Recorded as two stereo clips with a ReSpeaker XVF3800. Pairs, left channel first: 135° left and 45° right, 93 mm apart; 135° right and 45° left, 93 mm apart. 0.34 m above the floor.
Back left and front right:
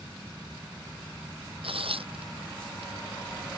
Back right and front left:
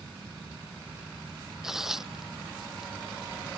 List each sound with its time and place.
1.6 s tearing paper: 40° right